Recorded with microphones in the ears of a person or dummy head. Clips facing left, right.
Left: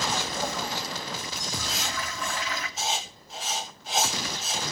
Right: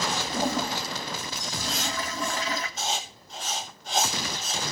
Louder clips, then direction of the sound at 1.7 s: Right 2 dB; centre (ahead or behind).